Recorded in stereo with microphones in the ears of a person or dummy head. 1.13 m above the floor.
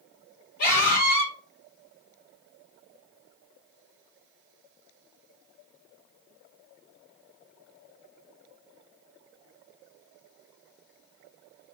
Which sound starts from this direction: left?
A scream, at 0.6 s.